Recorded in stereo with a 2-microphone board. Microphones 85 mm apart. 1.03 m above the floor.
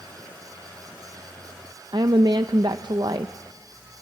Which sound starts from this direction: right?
A woman speaking, at 1.9 s.